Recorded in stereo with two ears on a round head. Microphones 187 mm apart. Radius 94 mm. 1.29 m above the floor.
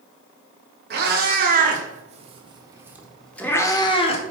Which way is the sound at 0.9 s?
50° right (ahead or behind).